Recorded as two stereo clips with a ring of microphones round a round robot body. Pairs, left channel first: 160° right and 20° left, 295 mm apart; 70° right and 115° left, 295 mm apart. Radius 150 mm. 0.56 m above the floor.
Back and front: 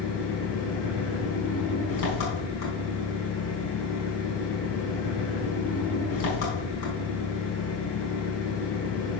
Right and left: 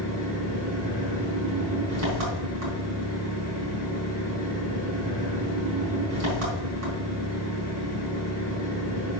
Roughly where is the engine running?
Behind left.